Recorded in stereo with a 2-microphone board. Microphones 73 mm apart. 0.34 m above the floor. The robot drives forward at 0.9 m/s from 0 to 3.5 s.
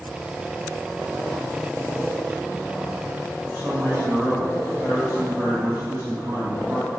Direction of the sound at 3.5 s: 25° right (ahead or behind).